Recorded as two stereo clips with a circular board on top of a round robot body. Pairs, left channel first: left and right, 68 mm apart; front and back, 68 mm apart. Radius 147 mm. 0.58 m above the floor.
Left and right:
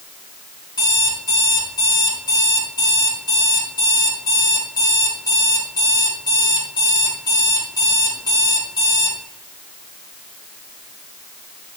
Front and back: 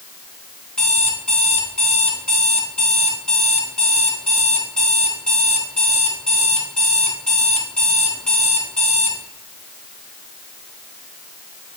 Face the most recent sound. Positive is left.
turn(degrees=80)